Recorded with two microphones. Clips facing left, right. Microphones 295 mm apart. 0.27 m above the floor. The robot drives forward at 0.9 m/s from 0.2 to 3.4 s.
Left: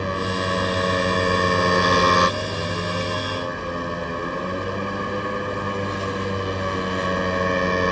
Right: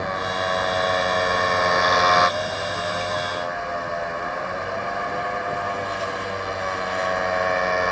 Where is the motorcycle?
35° left (ahead or behind).